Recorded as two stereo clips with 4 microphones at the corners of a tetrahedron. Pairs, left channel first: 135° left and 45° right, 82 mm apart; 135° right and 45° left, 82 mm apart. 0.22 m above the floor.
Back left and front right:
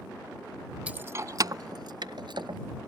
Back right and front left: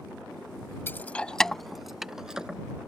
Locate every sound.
0.9 s keys jangling: 105° right; by 2.6 s 35° right